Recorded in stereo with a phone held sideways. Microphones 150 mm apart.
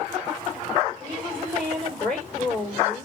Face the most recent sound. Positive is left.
turn(degrees=15)  # may be behind; listen again after turning